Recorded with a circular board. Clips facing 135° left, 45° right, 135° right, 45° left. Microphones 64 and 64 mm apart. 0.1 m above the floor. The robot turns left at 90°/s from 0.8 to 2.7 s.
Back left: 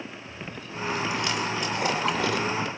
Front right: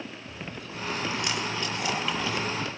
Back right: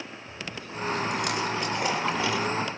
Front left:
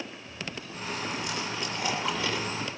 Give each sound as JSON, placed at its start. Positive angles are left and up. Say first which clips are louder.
{"t": 0.3, "sound": "chewing", "louder": "back left 1 dB, back right 1 dB", "azimuth_deg": -75, "distance_m": 9.0}